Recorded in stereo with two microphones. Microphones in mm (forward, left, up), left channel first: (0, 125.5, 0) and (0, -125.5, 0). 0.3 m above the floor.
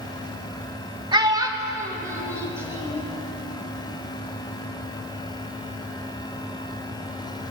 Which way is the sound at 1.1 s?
15° right (ahead or behind).